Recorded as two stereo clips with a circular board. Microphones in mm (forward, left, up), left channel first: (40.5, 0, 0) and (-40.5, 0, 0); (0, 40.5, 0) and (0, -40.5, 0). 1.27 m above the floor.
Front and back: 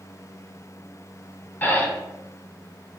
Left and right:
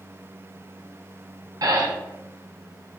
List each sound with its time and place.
1.6 s breathing: 65° right, 0.6 m